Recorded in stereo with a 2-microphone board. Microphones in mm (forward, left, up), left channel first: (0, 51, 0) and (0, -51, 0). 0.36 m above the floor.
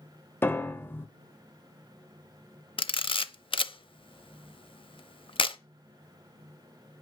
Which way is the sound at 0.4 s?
25° left (ahead or behind).